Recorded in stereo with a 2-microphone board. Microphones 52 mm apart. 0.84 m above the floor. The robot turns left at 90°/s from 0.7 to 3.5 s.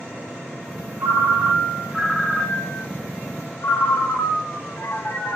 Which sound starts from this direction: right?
A ringtone, at 1.0 s.